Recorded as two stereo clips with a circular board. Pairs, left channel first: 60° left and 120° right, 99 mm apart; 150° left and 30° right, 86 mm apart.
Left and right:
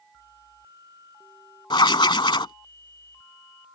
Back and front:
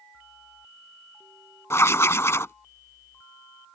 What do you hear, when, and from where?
1.7 s writing: 95° left